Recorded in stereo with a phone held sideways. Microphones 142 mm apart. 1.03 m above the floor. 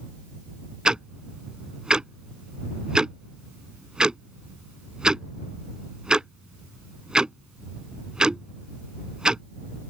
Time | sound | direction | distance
0.8 | ticking | 5° right (ahead or behind) | ?